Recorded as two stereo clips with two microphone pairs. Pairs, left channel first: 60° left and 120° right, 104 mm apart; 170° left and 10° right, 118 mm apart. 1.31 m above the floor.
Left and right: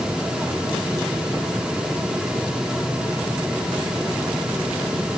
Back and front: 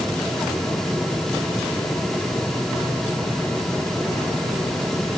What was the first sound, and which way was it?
Only background noise.